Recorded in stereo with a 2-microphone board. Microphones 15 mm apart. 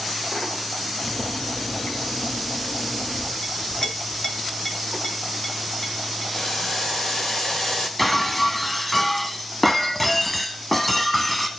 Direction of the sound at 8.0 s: 15° left (ahead or behind).